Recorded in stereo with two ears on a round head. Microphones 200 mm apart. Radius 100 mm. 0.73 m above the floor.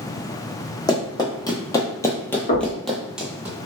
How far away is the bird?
No bird in this recording.